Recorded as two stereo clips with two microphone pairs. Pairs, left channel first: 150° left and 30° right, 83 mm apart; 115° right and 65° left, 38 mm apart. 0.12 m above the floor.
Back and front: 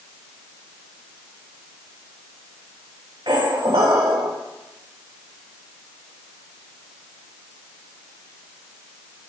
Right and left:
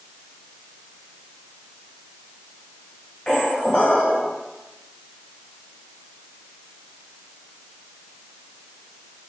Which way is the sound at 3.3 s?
50° right.